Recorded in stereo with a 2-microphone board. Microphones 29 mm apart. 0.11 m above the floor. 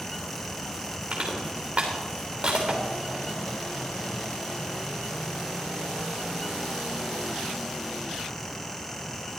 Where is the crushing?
50° right (ahead or behind), 3 m.